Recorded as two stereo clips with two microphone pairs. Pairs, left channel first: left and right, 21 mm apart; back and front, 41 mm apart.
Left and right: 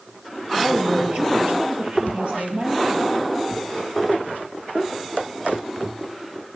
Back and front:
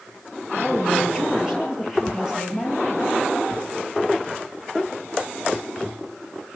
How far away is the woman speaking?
About 8.5 m.